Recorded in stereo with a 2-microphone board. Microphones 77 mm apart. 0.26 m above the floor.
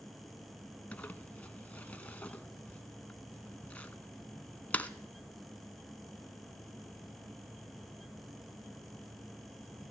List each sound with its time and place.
0.9 s crumpling: 20° left (ahead or behind), 0.8 m